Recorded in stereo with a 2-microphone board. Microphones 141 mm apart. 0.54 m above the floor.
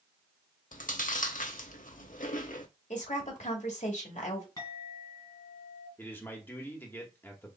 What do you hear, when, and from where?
0.7 s chewing: 70° left (ahead or behind), 0.6 m
2.9 s a woman speaking: 55° left (ahead or behind), 1.7 m
4.6 s a clink: 35° left (ahead or behind), 2.5 m
6.0 s a man speaking: 15° left (ahead or behind), 1.1 m